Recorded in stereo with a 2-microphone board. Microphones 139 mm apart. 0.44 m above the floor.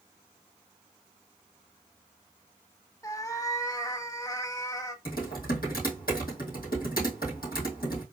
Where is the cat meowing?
25° left (ahead or behind), 0.6 m.